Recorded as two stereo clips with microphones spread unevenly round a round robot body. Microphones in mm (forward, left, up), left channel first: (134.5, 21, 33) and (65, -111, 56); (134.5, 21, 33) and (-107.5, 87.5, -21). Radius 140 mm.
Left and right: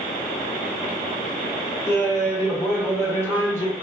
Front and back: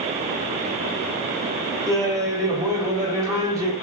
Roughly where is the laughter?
Behind left.